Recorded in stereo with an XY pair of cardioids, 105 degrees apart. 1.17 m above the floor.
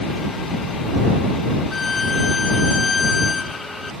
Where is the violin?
30° left.